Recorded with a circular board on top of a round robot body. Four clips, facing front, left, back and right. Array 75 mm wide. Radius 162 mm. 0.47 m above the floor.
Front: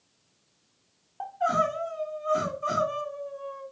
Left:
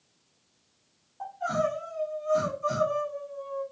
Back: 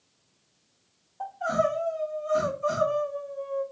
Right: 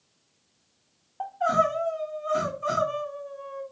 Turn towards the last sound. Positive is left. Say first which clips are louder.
# right 5 dB, even
turn(degrees=-55)